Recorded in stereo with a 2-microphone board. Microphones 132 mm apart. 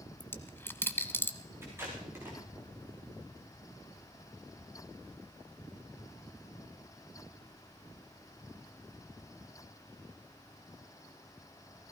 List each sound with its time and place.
0.2 s a dropped coin: 15° left (ahead or behind), 1.0 m
1.6 s tape being pulled: 20° right (ahead or behind), 5.5 m